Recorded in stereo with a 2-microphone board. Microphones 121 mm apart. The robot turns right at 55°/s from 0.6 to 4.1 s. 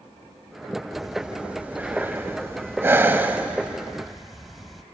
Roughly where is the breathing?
Centre.